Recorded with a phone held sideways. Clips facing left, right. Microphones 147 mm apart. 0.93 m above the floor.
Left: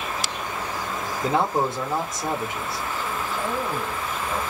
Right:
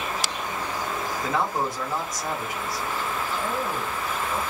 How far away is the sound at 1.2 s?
About 1.0 m.